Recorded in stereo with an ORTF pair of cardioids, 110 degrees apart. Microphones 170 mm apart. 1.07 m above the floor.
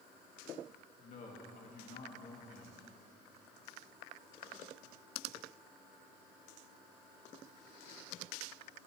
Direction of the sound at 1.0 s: 50° left.